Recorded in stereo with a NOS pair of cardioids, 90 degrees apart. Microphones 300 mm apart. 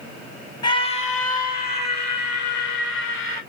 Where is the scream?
25° left, 1.0 m; by 3.4 s 80° left, 3.5 m.